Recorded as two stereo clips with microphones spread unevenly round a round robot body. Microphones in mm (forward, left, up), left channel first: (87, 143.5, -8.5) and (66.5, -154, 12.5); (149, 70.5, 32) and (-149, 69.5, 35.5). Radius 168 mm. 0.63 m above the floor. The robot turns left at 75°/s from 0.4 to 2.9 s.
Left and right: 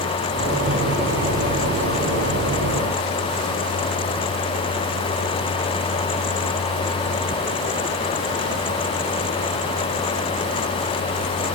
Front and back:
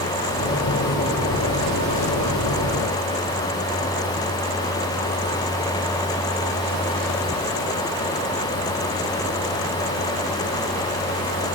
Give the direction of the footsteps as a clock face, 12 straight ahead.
No footsteps in this recording.